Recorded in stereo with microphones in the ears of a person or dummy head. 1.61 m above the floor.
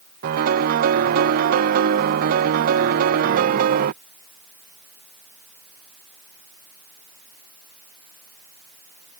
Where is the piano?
50° right (ahead or behind).